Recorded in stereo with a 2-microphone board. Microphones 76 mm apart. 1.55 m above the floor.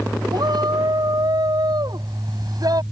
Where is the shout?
65° right (ahead or behind); by 2.8 s 55° right (ahead or behind).